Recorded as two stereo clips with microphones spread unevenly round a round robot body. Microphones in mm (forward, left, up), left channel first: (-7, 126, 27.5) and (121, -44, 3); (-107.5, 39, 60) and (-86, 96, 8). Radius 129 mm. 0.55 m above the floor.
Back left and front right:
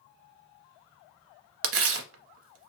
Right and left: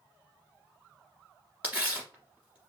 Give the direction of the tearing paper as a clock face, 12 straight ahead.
1 o'clock.